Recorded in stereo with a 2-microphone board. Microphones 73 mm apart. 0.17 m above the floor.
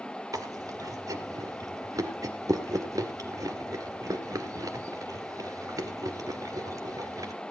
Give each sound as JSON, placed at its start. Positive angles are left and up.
{"t": 0.3, "sound": "chewing", "side_deg": -50, "distance_m": 1.9}